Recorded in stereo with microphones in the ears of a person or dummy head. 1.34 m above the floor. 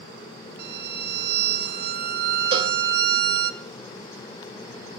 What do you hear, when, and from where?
0.6 s a violin: 55° right (ahead or behind), 1.1 m
2.5 s a cowbell: 30° right (ahead or behind), 2.5 m